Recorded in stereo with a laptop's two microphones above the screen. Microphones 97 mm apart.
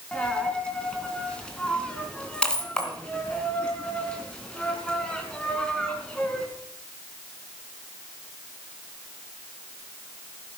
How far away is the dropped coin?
About 3.5 m.